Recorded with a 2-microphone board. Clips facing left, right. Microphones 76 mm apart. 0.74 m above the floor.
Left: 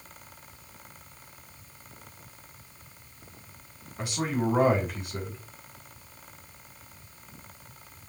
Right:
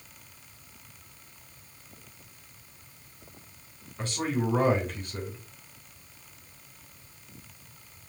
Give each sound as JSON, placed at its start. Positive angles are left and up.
{"t": 4.0, "sound": "a man speaking", "side_deg": 15, "distance_m": 2.5}